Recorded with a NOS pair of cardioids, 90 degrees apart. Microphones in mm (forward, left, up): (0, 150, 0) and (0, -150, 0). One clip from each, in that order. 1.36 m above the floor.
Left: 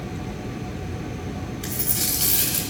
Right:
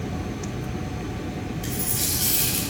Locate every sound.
1.6 s a dropped coin: 35° left, 3 m